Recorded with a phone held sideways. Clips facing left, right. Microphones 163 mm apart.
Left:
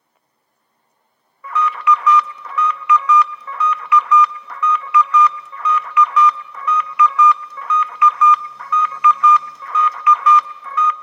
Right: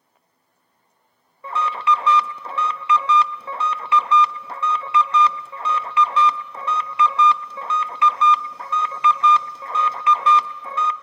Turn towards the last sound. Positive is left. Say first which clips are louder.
# left 4 dB
turn(degrees=-30)  # may be behind; listen again after turning